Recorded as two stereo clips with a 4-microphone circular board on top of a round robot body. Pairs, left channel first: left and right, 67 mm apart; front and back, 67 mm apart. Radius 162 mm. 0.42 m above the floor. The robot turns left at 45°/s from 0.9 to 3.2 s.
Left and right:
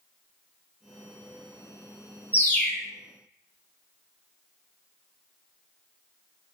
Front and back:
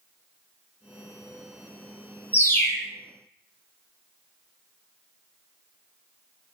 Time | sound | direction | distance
2.3 | a bird | 40° left | 1.6 m